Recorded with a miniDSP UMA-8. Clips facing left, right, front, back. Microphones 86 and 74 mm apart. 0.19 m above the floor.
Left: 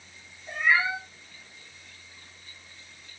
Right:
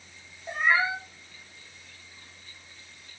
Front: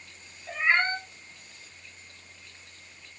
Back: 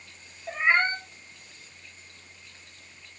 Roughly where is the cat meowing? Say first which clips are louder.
Even, back 1 dB; behind right.